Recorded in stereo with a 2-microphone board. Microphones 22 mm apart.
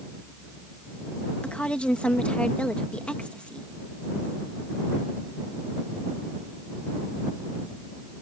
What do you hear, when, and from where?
1.4 s a woman speaking: 65° left (ahead or behind)